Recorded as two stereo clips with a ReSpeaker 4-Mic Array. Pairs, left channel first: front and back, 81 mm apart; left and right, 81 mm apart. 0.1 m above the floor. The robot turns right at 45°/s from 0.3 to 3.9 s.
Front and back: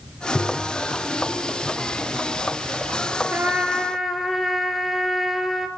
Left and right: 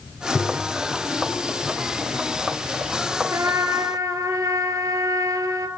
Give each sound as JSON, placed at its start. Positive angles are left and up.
{"t": 0.3, "sound": "tapping", "azimuth_deg": 30, "distance_m": 1.2}
{"t": 3.3, "sound": "a trumpet", "azimuth_deg": -120, "distance_m": 1.2}